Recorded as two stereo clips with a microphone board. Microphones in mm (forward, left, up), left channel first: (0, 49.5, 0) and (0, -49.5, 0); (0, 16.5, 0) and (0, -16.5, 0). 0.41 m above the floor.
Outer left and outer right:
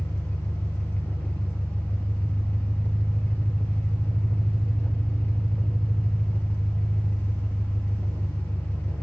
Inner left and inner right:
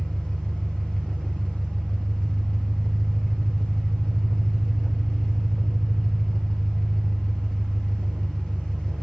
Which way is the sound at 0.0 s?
15° left (ahead or behind).